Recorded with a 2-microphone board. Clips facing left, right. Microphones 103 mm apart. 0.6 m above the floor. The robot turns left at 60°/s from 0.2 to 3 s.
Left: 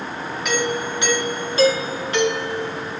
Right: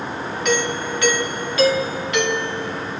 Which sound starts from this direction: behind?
A doorbell, at 0.5 s.